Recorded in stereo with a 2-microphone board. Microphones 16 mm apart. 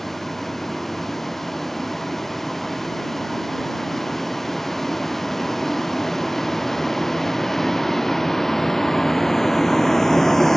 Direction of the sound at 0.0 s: 20° left (ahead or behind).